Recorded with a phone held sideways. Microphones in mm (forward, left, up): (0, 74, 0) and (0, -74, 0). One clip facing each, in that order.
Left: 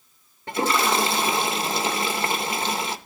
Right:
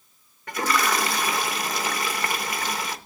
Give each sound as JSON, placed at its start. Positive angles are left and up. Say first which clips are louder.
{"t": 0.5, "sound": "a toilet flushing", "louder": "left 2 dB", "side_deg": 25, "distance_m": 0.5}